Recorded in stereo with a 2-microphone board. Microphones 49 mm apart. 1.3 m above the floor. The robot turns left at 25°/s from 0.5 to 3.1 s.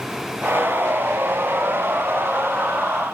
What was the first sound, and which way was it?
Only background noise.